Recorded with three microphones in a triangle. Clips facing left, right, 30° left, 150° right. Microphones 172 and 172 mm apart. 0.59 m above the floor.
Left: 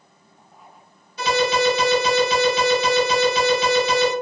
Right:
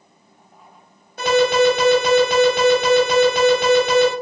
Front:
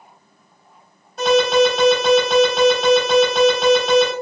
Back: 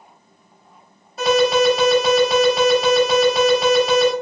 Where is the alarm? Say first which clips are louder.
Right 5 dB, front 1 dB; 60° right, 1.2 m.